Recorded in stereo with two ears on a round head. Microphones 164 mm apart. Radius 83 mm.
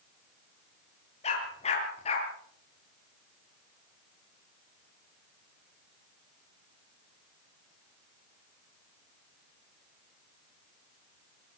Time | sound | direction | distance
1.2 | a dog barking | 35° left (ahead or behind) | 7 m